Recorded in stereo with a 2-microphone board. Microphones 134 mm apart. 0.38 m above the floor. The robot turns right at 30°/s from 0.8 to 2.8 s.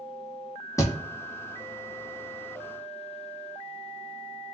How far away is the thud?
About 0.6 m.